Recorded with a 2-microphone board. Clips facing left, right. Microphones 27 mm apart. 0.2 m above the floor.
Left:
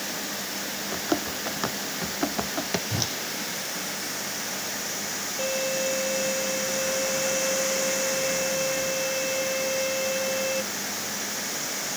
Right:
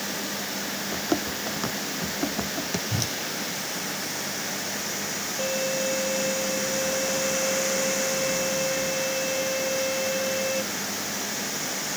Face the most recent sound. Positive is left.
turn(degrees=5)  # may be behind; listen again after turning